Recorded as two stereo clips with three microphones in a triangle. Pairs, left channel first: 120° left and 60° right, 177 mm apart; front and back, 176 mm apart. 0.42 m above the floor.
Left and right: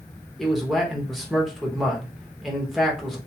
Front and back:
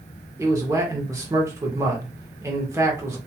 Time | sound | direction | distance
0.4 | a man speaking | 150° right | 0.7 m